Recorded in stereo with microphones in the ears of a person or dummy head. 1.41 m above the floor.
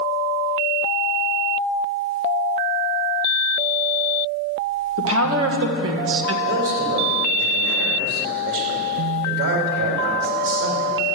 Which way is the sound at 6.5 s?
85° right.